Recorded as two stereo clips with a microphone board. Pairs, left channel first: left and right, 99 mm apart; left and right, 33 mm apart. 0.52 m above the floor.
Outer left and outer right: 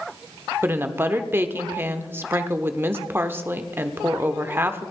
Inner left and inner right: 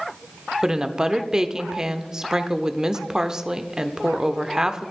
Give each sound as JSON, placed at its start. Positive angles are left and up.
{"t": 0.6, "sound": "a woman speaking", "side_deg": -25, "distance_m": 1.0}